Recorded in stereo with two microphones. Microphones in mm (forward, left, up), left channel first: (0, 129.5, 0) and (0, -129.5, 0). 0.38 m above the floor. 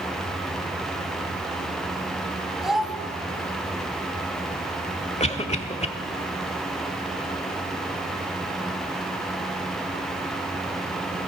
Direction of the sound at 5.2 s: 25° left (ahead or behind).